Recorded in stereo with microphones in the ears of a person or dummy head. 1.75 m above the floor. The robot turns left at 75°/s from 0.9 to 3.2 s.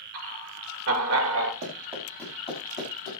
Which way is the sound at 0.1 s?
75° right (ahead or behind).